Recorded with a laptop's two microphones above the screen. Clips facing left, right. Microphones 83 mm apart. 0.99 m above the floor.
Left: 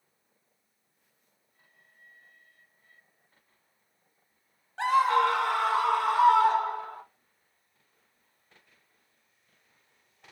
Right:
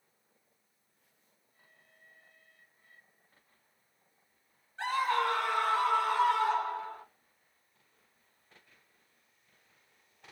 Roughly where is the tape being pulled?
No tape being pulled in this recording.